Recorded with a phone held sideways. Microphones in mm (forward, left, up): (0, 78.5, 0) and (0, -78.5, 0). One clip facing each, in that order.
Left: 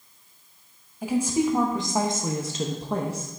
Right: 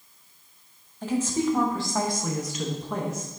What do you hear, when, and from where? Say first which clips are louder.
1.0 s a woman speaking: left 2 dB; 10° left (ahead or behind), 1.1 m; by 3.4 s 35° left (ahead or behind), 0.9 m